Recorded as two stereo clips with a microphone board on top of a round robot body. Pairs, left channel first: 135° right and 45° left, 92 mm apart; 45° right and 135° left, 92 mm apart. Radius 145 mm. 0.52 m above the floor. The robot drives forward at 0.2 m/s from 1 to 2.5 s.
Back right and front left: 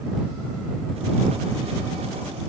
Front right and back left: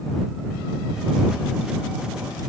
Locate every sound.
Only background noise.